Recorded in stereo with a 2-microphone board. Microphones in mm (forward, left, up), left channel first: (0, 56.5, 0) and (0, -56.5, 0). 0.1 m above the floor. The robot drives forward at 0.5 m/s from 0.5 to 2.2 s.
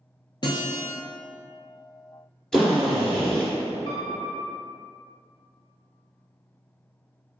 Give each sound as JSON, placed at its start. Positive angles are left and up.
{"t": 0.4, "sound": "a guitar", "side_deg": 45, "distance_m": 0.8}
{"t": 2.5, "sound": "a drill", "side_deg": 5, "distance_m": 1.1}
{"t": 3.9, "sound": "a piano", "side_deg": 55, "distance_m": 0.8}